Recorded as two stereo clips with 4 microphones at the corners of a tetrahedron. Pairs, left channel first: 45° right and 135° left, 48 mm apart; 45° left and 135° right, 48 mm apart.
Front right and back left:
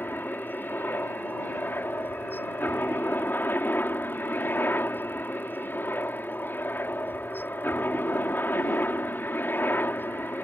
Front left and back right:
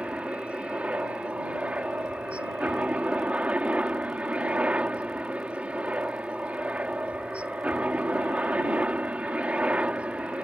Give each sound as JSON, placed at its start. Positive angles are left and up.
{"t": 0.0, "sound": "a helicopter", "azimuth_deg": -80}